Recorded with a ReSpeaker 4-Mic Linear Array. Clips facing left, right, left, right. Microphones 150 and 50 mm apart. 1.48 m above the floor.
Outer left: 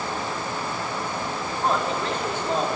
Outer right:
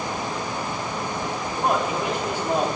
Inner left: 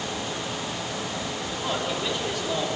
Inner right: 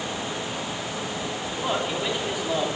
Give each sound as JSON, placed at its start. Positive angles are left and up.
{"t": 1.5, "sound": "a man speaking", "side_deg": -15, "distance_m": 4.0}